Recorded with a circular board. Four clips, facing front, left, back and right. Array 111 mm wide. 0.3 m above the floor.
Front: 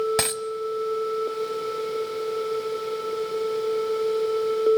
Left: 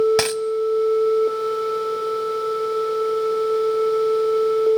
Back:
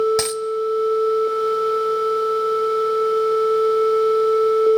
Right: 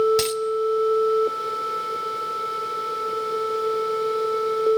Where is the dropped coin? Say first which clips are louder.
Left 2 dB, back 5 dB; 75° left, 0.8 m.